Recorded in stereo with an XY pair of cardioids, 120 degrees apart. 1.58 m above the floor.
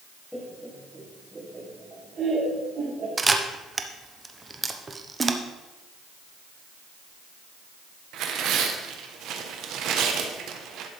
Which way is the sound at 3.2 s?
20° right.